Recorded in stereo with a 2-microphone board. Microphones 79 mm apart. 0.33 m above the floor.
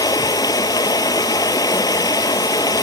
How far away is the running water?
About 0.7 m.